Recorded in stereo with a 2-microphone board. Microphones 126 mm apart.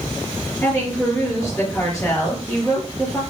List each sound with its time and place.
0.6 s a woman speaking: 15° left (ahead or behind), 4 m